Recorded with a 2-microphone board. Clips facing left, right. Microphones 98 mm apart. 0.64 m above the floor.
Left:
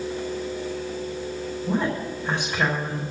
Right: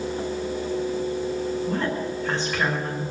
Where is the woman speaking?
15° left (ahead or behind), 4.5 m.